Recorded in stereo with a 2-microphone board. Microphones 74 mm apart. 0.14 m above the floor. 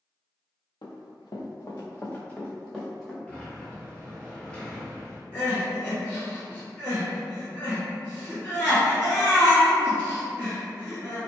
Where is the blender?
No blender in this recording.